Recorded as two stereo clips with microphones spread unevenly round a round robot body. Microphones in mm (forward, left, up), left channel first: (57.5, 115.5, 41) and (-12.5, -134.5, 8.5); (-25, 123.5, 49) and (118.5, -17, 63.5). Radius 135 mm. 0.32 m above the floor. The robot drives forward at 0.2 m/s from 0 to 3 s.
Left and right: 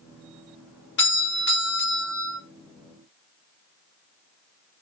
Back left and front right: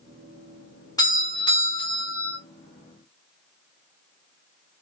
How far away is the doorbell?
About 1.5 m.